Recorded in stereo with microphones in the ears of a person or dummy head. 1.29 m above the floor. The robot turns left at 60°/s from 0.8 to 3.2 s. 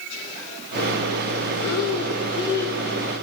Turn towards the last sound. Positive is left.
turn(degrees=-25)